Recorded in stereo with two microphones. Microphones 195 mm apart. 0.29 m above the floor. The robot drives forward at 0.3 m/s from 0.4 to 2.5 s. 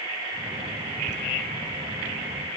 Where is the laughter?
35° right (ahead or behind), 1.1 m.